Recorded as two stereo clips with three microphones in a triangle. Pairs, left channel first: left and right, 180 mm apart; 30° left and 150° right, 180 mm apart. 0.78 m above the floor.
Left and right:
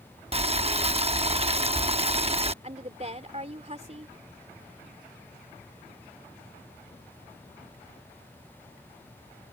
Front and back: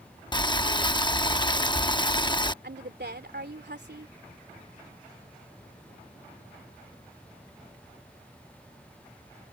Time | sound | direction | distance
0.3 | boiling | 35° right | ?
2.6 | a woman speaking | 140° right | ?